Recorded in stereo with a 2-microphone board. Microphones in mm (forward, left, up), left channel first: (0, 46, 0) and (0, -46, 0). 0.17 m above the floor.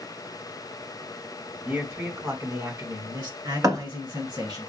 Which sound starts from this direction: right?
A thud, at 3.6 s.